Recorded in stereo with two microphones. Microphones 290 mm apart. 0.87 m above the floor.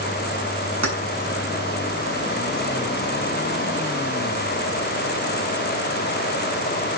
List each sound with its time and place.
0.8 s keys jangling: 65° right (ahead or behind), 6 m